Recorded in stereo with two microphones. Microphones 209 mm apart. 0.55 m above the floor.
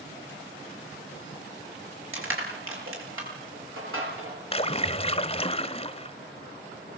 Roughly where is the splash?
Left.